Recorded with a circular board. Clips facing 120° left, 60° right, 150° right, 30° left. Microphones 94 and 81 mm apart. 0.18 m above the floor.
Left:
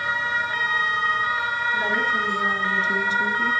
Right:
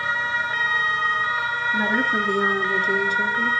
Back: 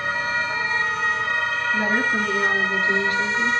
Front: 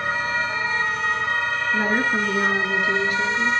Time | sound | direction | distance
1.7 | a woman speaking | 20° right | 3 m